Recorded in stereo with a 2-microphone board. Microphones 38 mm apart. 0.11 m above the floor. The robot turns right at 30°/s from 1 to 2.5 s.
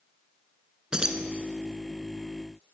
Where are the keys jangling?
20° right (ahead or behind), 0.8 m.